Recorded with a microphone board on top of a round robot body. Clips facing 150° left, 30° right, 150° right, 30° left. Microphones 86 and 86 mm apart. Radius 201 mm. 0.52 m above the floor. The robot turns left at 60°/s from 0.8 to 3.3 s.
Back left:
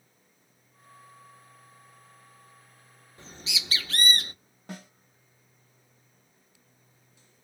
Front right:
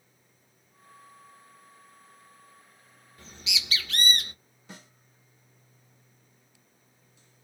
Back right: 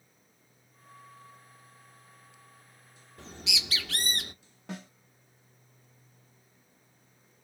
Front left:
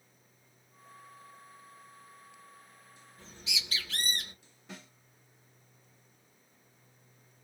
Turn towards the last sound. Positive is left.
turn(degrees=-175)